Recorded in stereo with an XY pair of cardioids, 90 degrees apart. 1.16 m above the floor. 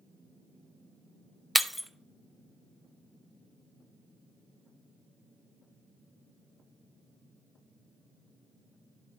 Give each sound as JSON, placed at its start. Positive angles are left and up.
{"t": 1.6, "sound": "breaking glass", "azimuth_deg": 10, "distance_m": 0.7}